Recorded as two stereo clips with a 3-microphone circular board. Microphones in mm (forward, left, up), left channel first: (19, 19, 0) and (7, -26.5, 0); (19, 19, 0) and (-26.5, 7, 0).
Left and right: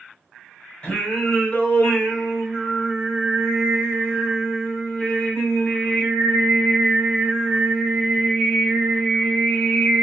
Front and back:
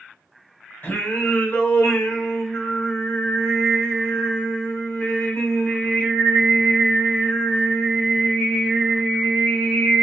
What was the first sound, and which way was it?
Singing, 15° left.